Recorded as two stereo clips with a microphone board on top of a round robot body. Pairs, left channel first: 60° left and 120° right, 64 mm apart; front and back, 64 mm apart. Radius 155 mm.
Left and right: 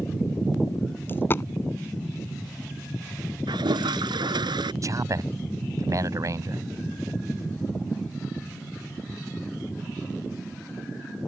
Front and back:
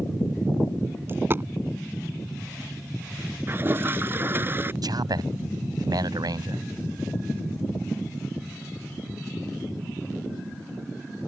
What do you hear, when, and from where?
1.1 s a dropped coin: 120° left
3.5 s a toilet flushing: 120° right
4.8 s a man speaking: 160° right